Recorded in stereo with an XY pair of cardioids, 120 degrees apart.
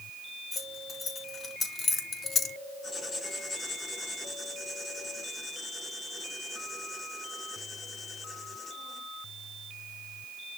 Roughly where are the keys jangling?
Ahead.